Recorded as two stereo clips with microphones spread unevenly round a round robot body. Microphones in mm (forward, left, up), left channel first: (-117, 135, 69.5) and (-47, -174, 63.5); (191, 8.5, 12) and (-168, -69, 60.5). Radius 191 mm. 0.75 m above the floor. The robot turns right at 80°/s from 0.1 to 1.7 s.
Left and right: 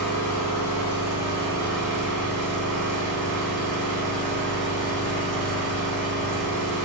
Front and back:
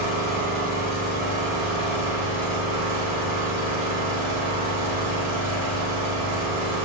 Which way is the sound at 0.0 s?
60° left.